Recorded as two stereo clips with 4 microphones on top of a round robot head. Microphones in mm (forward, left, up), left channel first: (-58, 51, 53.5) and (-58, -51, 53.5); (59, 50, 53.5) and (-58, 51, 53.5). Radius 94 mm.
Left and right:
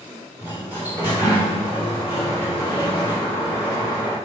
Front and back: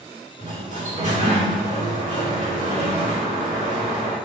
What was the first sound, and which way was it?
A sliding door, 160° right.